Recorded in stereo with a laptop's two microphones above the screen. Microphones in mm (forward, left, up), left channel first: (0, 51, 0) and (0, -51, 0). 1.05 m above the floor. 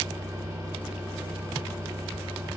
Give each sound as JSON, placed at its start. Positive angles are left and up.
{"t": 0.0, "sound": "a fan", "side_deg": -30, "distance_m": 2.0}